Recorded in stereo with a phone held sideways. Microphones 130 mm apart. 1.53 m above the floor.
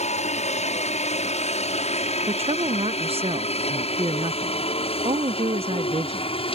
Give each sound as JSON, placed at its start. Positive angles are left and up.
{"t": 0.0, "sound": "a helicopter", "side_deg": 65}
{"t": 2.3, "sound": "a woman speaking", "side_deg": -55}